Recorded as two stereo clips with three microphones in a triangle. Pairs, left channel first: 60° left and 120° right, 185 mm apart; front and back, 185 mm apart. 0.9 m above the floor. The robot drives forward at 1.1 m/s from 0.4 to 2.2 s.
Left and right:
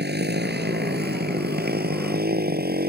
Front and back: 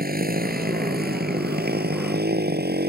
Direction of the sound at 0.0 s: 145° right.